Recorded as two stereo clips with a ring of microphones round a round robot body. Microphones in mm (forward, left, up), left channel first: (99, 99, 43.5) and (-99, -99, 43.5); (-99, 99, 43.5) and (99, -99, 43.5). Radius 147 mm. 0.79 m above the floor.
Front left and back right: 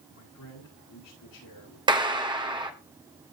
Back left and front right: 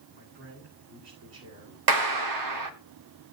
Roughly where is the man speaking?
Ahead.